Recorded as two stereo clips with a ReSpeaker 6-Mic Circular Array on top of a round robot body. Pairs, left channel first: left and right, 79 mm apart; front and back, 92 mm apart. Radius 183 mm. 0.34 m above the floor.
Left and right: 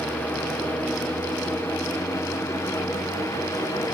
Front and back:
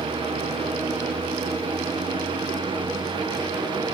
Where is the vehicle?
160° left; by 3.9 s 140° left.